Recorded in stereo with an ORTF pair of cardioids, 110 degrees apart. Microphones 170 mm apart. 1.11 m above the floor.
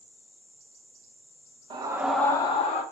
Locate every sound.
1.7 s a scream: 30° right, 0.9 m; by 2.8 s 45° left, 1.1 m